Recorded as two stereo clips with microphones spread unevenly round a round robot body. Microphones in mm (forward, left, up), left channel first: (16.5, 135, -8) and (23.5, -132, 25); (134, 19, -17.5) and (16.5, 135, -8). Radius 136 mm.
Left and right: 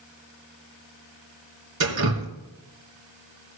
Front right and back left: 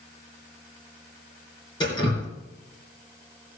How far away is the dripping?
About 3 m.